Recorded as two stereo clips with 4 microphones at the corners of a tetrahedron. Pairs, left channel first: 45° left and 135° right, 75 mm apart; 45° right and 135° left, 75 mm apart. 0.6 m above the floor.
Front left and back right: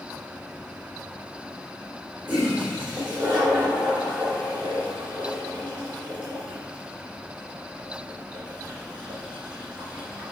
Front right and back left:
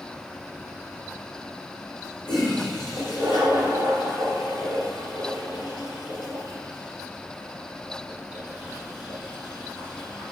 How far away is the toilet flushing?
About 3 m.